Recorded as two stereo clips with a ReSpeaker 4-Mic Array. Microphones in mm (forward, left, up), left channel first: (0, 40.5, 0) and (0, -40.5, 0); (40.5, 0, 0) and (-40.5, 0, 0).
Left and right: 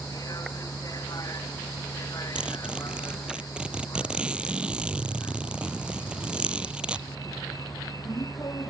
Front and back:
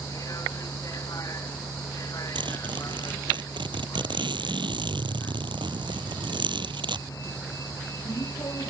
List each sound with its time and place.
0.0 s a vehicle: 45° left
2.4 s a zipper: 165° right